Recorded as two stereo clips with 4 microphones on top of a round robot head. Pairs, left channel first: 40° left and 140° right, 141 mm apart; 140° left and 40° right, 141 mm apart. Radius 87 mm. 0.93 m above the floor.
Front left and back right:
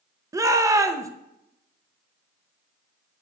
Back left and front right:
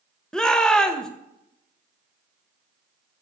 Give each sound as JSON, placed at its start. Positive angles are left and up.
{"t": 0.3, "sound": "a shout", "azimuth_deg": -145, "distance_m": 0.7}